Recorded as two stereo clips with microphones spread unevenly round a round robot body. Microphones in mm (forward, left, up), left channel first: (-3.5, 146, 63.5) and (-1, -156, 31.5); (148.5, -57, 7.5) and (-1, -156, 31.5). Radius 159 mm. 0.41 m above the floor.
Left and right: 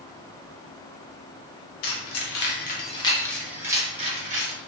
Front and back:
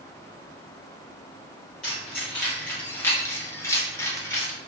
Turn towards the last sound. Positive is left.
turn(degrees=-35)